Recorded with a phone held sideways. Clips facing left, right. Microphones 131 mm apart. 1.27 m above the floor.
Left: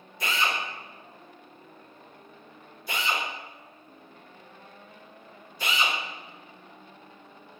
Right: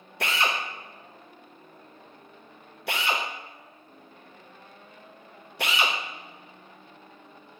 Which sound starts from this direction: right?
A drill, at 0.2 s.